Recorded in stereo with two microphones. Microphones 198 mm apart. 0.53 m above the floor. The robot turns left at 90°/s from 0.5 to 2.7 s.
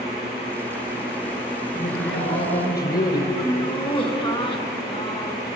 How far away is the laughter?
About 3 m.